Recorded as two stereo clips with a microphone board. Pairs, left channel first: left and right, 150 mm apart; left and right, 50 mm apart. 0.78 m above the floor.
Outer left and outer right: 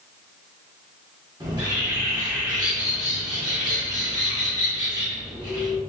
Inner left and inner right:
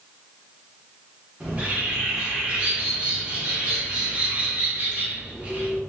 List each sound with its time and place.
1.4 s a bird: 25° right (ahead or behind), 0.9 m